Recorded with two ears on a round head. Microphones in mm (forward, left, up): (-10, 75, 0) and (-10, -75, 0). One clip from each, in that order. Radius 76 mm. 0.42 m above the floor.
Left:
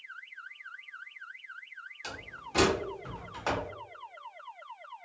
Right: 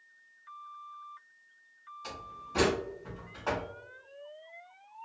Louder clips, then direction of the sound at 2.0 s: Even; 60° left (ahead or behind).